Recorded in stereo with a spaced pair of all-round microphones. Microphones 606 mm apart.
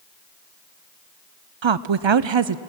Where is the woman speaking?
50° right (ahead or behind), 0.5 m.